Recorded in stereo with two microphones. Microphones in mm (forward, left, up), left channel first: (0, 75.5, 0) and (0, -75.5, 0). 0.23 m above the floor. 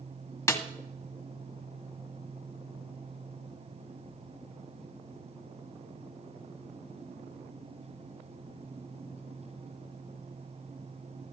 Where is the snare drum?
20° left (ahead or behind), 1.2 m.